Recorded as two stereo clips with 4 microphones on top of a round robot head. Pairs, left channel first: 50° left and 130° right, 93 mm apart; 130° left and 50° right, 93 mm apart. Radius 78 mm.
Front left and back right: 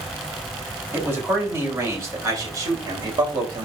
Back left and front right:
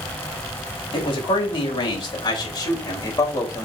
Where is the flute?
I don't hear a flute.